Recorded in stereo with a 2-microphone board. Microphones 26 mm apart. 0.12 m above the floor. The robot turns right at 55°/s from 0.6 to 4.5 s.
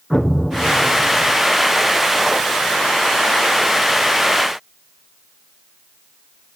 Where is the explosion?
175° left, 1.4 m; by 1.4 s 145° right, 1.4 m.